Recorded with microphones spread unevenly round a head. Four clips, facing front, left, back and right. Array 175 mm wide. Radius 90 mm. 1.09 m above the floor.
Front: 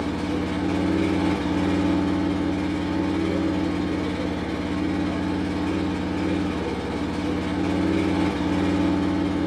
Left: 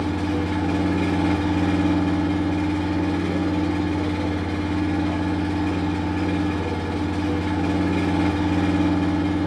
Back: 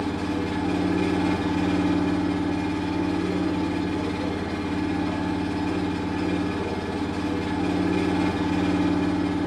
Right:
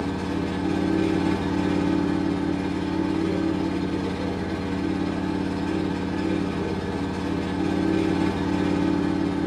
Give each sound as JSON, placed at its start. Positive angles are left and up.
{"t": 0.0, "sound": "an engine running", "azimuth_deg": 80, "distance_m": 1.6}